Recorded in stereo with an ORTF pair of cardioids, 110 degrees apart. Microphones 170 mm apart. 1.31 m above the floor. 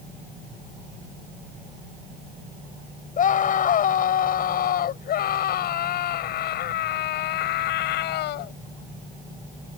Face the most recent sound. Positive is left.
turn(degrees=80)